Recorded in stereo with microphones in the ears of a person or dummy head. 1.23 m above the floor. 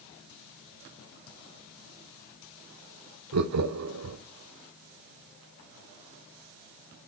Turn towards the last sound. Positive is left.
turn(degrees=-85)